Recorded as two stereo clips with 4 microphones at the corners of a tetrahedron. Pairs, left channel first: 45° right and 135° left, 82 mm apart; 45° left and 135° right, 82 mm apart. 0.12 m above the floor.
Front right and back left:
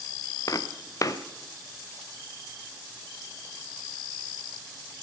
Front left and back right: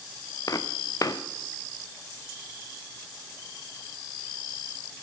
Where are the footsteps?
Straight ahead, 1.2 m.